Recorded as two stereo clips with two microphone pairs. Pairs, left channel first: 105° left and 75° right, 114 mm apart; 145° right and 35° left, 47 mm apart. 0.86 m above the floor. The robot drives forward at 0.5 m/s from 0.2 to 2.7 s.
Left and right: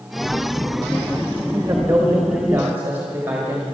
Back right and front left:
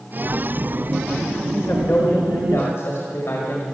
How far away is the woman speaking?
About 1.6 m.